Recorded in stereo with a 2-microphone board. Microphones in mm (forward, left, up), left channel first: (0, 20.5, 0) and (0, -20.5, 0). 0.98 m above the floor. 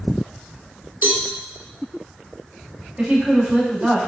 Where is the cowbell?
55° right (ahead or behind), 0.8 m.